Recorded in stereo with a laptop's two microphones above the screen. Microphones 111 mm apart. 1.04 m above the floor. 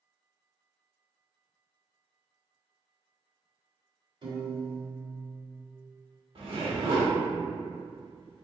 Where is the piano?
50° right (ahead or behind), 1.7 m.